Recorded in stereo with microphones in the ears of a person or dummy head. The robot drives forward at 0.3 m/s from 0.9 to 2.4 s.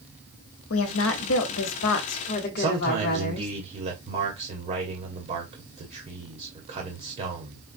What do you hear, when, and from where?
0.7 s a woman speaking: 75° left (ahead or behind), 1.0 m; by 3.5 s 55° left (ahead or behind), 1.2 m
2.6 s a man speaking: 35° right (ahead or behind), 1.2 m